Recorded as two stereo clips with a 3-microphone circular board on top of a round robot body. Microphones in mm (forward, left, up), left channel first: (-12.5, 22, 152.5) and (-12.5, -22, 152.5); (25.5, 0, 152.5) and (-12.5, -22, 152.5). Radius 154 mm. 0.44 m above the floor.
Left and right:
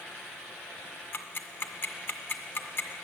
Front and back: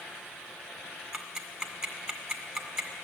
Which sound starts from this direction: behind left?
Ticking, at 1.1 s.